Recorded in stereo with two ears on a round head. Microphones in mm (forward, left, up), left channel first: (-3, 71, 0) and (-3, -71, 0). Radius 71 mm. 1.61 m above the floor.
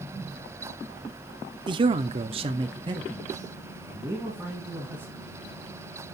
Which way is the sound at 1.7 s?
30° right (ahead or behind).